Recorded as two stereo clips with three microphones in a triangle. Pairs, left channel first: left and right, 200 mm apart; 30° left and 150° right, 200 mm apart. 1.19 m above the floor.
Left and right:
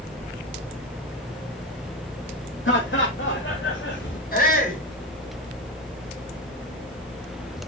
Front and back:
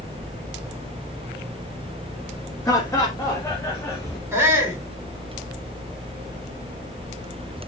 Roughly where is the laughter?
Left.